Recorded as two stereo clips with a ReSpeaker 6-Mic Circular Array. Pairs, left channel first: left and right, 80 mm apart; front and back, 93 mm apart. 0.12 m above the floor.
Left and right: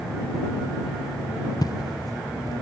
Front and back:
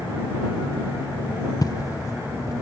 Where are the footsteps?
50° left.